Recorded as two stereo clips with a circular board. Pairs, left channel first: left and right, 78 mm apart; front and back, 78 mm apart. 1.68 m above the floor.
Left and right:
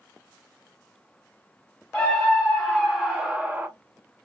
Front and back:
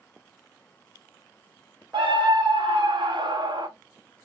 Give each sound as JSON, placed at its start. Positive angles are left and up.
{"t": 1.9, "sound": "a scream", "azimuth_deg": 175, "distance_m": 1.5}